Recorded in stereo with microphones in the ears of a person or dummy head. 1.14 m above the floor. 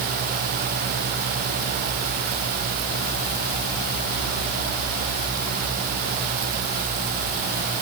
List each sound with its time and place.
Only background noise.